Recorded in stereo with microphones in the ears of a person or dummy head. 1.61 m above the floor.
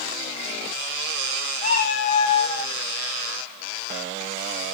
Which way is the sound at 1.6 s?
55° left (ahead or behind).